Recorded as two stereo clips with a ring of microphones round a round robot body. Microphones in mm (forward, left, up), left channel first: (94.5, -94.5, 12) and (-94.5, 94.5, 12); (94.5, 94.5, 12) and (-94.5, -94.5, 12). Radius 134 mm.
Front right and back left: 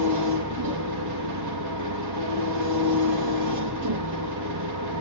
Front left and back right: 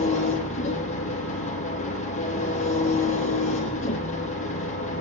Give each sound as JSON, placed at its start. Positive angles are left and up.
{"t": 0.0, "sound": "an engine running", "azimuth_deg": 110, "distance_m": 5.0}